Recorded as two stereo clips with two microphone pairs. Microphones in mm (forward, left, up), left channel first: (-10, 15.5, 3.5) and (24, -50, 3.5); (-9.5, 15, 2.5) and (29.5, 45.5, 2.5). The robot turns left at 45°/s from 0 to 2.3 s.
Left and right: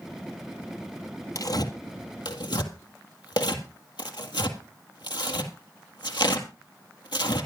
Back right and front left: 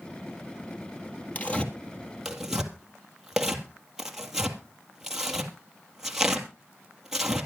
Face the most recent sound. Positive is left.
turn(degrees=120)